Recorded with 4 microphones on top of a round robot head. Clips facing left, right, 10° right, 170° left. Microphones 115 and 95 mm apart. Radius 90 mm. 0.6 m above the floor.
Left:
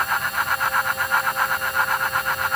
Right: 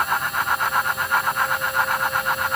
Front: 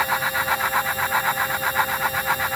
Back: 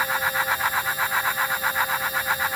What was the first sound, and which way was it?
Only background noise.